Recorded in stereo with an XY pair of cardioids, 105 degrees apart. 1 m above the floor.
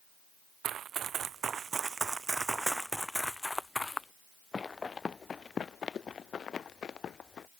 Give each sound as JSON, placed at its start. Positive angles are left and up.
{"t": 0.6, "sound": "running footsteps", "azimuth_deg": -65}